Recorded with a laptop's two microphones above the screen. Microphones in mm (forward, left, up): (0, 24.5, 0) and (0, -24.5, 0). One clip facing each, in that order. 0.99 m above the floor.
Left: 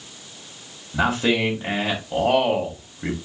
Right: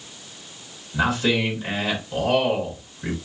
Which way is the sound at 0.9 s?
50° left (ahead or behind).